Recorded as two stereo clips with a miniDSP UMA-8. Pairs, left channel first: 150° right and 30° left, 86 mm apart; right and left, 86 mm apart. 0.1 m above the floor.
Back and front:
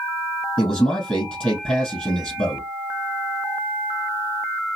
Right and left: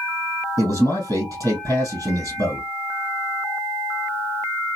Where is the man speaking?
135° left, 2.5 m.